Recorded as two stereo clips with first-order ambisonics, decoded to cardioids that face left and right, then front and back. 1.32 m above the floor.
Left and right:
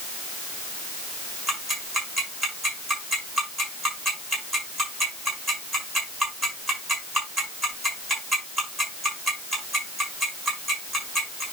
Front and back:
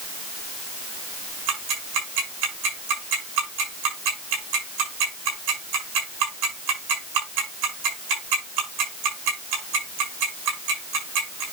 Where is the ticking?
170° right, 7 m.